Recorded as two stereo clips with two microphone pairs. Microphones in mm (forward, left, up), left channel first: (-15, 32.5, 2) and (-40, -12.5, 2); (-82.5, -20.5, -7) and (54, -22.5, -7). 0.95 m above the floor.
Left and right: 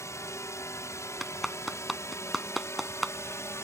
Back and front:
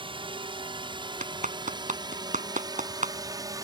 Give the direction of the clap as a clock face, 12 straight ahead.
1 o'clock.